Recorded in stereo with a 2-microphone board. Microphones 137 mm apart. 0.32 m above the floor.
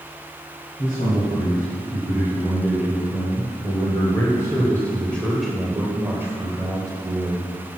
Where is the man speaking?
55° left (ahead or behind), 3 m; by 7.5 s 40° right (ahead or behind), 1.8 m.